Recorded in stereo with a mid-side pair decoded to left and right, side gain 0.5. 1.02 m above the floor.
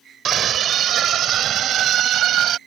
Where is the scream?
55° right; by 2.6 s 65° right.